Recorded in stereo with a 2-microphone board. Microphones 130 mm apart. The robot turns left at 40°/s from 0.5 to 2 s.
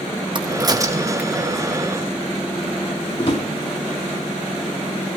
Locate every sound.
0.3 s a crack: 35° right (ahead or behind), 0.8 m; by 1.4 s 5° right (ahead or behind), 0.8 m
3.2 s a drawer: 40° left (ahead or behind), 3 m